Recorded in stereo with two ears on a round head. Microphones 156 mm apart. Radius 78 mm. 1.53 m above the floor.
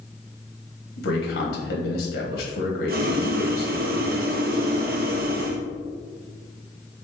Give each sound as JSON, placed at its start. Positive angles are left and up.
{"t": 1.0, "sound": "a man speaking", "side_deg": 65, "distance_m": 1.7}
{"t": 2.9, "sound": "boiling", "side_deg": -60, "distance_m": 0.6}